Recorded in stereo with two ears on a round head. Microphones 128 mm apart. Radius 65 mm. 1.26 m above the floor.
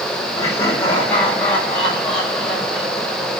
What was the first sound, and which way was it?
Laughter, 20° left (ahead or behind).